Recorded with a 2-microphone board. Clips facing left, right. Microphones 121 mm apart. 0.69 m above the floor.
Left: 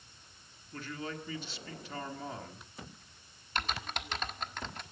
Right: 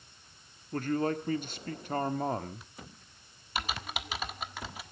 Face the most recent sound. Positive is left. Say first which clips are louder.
# right 1 dB
turn(degrees=-5)  # may be behind; listen again after turning